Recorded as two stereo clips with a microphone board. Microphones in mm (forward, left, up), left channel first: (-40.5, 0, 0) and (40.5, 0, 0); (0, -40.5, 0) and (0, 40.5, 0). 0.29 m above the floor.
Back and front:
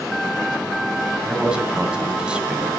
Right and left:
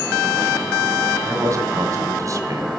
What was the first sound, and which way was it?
A man speaking, 75° left.